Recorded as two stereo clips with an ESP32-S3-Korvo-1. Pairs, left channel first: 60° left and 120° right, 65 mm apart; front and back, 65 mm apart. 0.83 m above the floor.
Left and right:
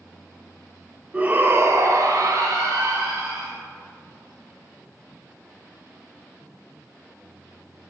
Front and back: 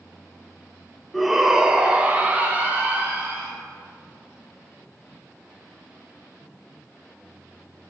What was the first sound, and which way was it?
A shout, 85° right.